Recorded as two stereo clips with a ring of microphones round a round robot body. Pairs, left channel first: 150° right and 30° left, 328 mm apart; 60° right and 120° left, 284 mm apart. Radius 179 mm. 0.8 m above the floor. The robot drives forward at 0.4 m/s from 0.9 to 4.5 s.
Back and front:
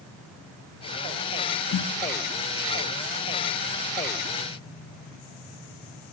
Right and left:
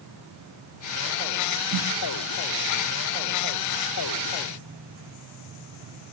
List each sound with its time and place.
1.7 s a snare drum: 160° left, 0.9 m; by 1.9 s 165° left, 0.9 m